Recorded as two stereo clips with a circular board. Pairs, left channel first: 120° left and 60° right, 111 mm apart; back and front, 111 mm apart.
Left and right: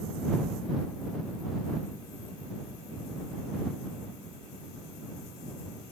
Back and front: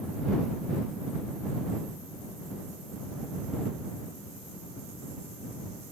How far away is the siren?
I don't hear a siren.